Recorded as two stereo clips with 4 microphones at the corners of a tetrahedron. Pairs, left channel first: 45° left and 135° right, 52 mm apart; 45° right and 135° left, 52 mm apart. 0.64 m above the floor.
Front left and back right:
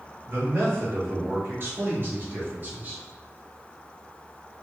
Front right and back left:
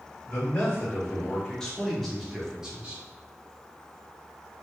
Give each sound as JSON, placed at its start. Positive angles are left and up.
{"t": 0.3, "sound": "a man speaking", "azimuth_deg": -100, "distance_m": 1.8}